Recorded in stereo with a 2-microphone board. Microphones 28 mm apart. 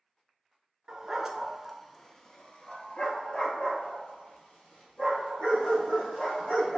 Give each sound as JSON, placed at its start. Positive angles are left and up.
{"t": 0.9, "sound": "a dog barking", "side_deg": -25, "distance_m": 0.7}